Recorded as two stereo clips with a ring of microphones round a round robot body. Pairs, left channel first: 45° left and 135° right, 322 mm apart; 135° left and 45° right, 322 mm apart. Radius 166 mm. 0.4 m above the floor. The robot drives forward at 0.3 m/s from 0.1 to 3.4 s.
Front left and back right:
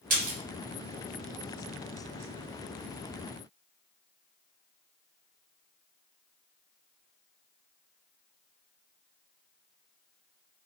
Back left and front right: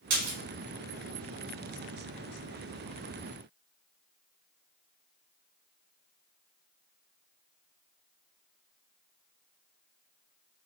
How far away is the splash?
About 1.4 m.